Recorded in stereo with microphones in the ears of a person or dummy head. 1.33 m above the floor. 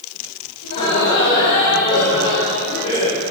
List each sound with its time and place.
0.6 s laughter: 65° left (ahead or behind), 5 m; by 3.2 s 85° left, 6 m